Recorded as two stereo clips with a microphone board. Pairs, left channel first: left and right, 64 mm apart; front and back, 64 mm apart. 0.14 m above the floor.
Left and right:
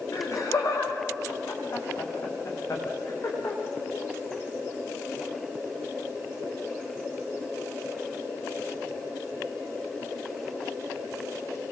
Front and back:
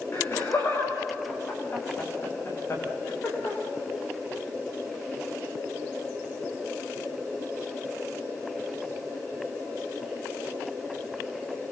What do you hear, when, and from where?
0.1 s laughter: 50° left, 9.5 m